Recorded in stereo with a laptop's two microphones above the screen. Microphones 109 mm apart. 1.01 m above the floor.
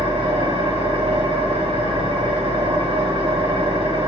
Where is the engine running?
50° right (ahead or behind), 1.0 m.